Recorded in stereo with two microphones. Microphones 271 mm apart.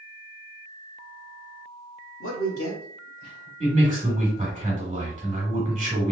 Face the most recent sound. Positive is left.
turn(degrees=-25)  # may be behind; listen again after turning